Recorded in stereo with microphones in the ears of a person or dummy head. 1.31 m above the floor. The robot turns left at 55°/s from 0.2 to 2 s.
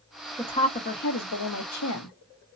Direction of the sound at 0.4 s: 165° left.